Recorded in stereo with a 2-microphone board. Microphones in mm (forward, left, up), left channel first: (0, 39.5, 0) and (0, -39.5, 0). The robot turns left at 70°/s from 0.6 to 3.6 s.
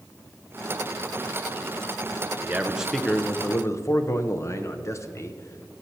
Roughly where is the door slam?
No door slam in this recording.